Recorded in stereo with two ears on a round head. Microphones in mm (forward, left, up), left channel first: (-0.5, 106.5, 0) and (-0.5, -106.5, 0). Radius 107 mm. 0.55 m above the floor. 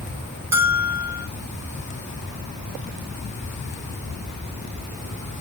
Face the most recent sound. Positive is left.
turn(degrees=-10)  # may be behind; listen again after turning